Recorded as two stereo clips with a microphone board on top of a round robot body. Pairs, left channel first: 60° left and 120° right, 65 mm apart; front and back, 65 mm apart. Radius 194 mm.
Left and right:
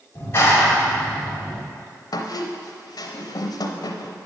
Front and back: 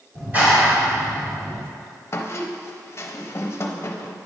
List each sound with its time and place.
0.1 s a clap: 115° left, 2 m
2.1 s a squeak: 50° left, 0.6 m